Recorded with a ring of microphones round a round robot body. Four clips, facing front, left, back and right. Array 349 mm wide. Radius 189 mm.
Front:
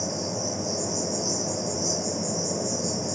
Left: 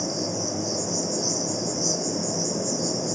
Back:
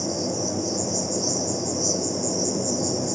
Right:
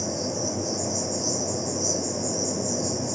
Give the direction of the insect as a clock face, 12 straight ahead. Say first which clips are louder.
Even, back 3 dB; 7 o'clock.